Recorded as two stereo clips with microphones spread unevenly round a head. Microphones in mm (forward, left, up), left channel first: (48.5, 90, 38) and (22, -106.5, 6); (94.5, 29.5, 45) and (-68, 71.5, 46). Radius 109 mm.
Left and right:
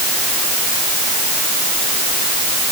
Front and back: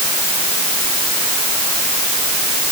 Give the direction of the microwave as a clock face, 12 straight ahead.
I don't hear a microwave.